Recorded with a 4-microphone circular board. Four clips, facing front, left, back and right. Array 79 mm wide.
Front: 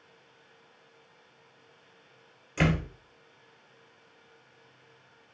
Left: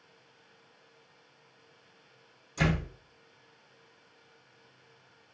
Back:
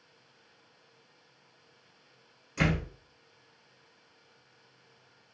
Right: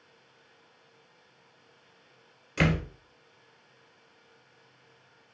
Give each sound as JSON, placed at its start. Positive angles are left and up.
{"t": 2.6, "sound": "a door slam", "azimuth_deg": -75, "distance_m": 1.5}